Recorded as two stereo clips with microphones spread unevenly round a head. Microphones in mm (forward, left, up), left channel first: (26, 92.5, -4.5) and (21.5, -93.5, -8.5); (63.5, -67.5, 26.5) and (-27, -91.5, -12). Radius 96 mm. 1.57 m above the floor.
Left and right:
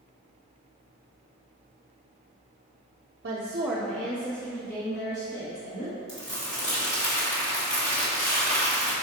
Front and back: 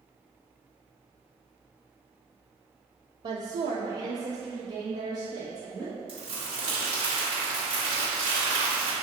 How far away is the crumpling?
About 2 m.